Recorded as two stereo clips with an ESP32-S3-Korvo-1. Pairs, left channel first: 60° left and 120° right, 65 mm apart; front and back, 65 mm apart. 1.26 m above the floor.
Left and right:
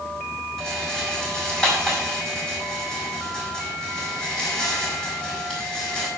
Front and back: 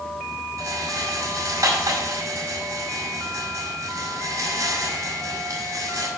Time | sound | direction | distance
0.6 | a rattle | 140° left | 5 m